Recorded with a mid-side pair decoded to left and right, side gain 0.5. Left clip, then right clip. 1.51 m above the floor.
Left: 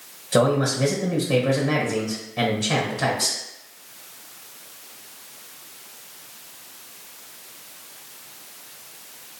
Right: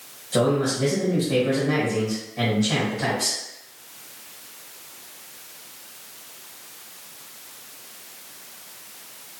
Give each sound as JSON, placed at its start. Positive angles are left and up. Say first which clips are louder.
{"t": 0.3, "sound": "a man speaking", "louder": "left 2 dB", "azimuth_deg": 50, "distance_m": 1.2}